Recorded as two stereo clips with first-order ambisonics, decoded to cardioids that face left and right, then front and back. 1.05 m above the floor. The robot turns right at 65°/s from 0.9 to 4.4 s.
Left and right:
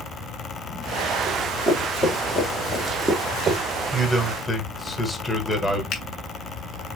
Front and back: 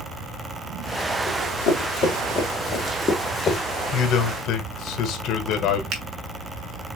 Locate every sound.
1.3 s running footsteps: 30° right, 2.5 m; by 3.6 s 45° right, 1.2 m
3.9 s a man speaking: 25° right, 1.1 m; by 5.8 s 10° left, 1.1 m
5.9 s a finger snap: 140° left, 1.2 m